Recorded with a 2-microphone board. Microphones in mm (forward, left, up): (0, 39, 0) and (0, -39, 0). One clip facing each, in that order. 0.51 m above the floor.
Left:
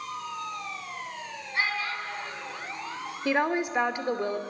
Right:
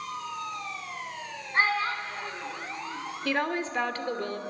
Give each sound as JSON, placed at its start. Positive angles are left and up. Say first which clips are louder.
{"t": 1.5, "sound": "a child speaking", "louder": "right 4 dB", "side_deg": -40, "distance_m": 2.0}
{"t": 3.2, "sound": "a woman speaking", "louder": "left 3 dB", "side_deg": 15, "distance_m": 1.2}